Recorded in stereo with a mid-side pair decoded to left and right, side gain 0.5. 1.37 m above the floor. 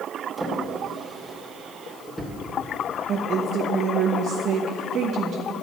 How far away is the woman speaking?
About 1.2 m.